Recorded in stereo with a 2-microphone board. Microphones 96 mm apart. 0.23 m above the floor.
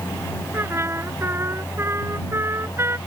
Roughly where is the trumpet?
Right.